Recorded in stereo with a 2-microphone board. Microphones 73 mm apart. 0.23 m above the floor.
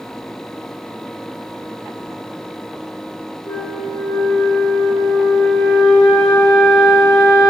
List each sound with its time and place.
3.5 s a flute: 70° left (ahead or behind), 4.5 m